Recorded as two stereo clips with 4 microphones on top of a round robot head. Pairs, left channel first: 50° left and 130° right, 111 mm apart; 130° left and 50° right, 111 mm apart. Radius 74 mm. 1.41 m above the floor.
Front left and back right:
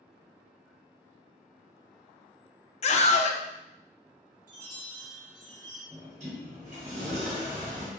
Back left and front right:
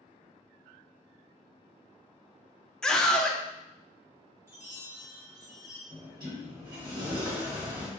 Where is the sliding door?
100° right, 1.7 m.